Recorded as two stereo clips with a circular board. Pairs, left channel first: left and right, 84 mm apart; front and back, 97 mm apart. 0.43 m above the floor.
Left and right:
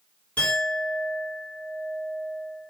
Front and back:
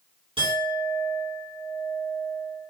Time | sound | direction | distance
0.4 | a clink | 165° left | 2.5 m